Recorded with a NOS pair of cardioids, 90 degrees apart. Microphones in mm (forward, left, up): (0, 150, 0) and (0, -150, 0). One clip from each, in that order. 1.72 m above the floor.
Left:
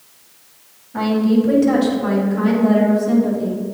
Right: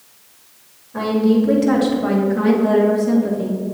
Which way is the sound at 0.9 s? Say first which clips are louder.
Right 1 dB; 15° right.